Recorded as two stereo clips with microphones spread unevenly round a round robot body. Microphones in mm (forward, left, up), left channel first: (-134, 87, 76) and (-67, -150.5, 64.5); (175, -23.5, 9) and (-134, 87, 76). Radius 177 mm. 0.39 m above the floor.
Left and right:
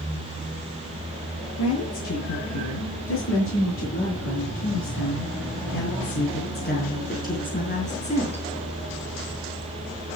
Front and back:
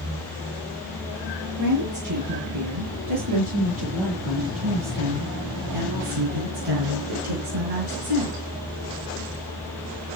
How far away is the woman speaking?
About 8 m.